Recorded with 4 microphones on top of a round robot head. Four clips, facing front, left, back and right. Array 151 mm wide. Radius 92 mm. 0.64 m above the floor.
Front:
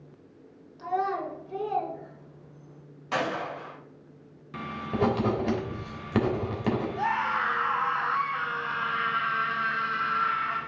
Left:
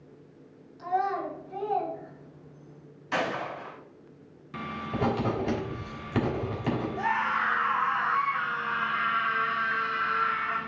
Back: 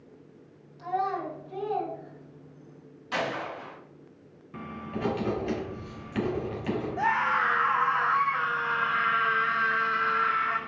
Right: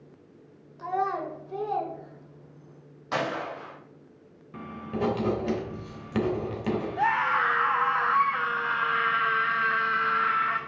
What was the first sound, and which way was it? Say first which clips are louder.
A child speaking: even, front 1 dB; 75° right.